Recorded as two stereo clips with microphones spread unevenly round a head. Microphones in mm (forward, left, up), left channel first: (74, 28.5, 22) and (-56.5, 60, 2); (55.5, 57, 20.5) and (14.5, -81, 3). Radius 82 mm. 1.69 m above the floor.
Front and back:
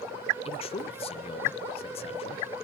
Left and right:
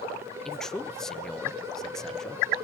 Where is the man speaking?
5° right, 0.6 m.